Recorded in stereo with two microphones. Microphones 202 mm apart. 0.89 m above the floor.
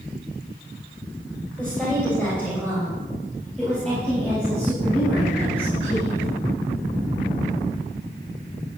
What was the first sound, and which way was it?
A woman speaking, 5° left (ahead or behind).